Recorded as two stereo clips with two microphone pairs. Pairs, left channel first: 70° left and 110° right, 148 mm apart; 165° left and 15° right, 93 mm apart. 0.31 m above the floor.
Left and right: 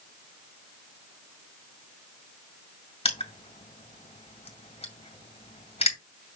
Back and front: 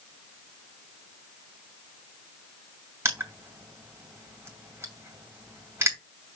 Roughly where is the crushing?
Ahead left.